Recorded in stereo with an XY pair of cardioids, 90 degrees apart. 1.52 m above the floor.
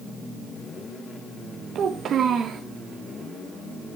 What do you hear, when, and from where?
1.8 s a child speaking: 70° right, 1.3 m